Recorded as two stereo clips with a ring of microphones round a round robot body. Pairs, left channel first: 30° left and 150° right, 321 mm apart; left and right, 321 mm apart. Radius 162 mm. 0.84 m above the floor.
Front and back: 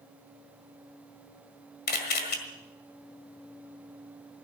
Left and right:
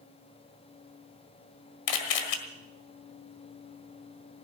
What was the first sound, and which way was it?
A camera shutter, 90° left.